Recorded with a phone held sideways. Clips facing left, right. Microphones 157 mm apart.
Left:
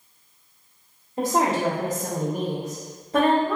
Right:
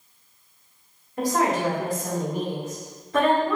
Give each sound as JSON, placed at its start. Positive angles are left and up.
{"t": 1.2, "sound": "a woman speaking", "side_deg": 20, "distance_m": 1.2}